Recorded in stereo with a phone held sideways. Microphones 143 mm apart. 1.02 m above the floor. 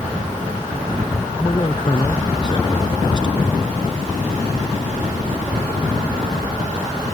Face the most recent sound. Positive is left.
turn(degrees=35)  # may be behind; listen again after turning